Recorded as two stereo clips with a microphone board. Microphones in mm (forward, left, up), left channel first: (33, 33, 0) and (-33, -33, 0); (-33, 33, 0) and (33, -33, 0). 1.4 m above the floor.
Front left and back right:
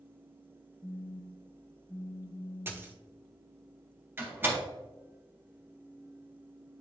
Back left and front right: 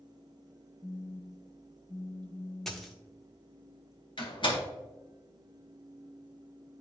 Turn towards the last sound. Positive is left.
turn(degrees=160)